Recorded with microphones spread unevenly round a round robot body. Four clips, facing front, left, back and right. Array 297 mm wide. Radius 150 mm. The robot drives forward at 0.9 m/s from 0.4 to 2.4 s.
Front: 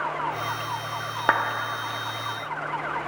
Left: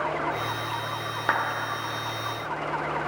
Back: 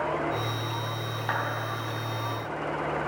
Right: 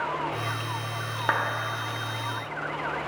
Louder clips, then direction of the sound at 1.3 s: Left 1 dB, front 8 dB; 5° right.